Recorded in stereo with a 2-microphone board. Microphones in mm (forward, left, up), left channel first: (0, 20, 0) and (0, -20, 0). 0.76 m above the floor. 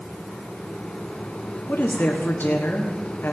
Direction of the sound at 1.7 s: 55° left (ahead or behind).